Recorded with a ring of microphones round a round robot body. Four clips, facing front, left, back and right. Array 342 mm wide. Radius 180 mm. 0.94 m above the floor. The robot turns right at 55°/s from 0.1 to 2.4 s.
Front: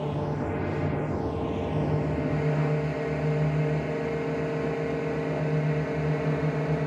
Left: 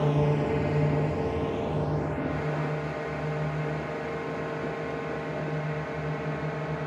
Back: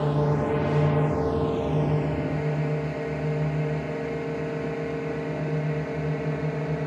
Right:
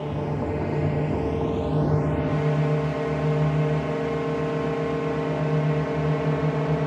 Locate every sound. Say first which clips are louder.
0.0 s a drone: left 2 dB, back 5 dB; 145° left; by 6.9 s 85° right